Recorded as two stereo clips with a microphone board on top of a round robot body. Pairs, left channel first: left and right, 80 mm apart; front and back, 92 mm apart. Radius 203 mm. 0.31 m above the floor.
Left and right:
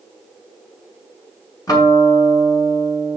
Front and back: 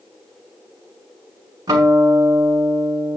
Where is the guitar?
130° left, 5 m.